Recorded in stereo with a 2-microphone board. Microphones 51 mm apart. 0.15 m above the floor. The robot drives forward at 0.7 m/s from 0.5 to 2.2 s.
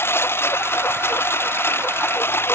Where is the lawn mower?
50° left (ahead or behind); by 2.5 s 45° left (ahead or behind).